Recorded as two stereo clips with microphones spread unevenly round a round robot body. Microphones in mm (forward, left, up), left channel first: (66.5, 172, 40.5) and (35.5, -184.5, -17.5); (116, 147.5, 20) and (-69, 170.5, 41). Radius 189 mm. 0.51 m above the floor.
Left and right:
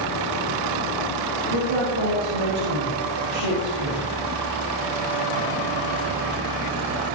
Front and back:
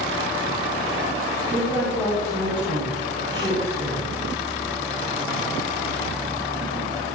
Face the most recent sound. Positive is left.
turn(degrees=-90)